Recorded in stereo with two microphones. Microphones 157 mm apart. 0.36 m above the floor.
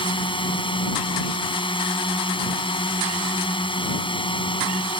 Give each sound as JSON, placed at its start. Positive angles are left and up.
{"t": 0.0, "sound": "a drone", "side_deg": 35}